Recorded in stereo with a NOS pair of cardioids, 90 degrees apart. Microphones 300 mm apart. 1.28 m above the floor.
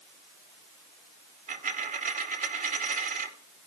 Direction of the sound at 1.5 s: 30° right.